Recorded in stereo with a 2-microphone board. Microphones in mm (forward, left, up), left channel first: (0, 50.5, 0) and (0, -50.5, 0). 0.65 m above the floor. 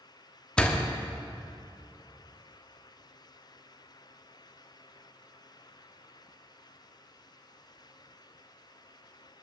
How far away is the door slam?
About 0.8 m.